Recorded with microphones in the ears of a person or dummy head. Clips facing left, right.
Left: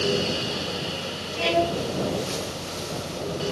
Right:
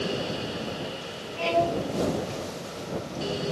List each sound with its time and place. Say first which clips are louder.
1.4 s a violin: left 1 dB; 25° left (ahead or behind)